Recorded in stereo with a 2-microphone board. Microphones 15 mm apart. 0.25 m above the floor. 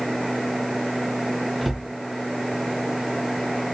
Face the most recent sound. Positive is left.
turn(degrees=-25)  # may be behind; listen again after turning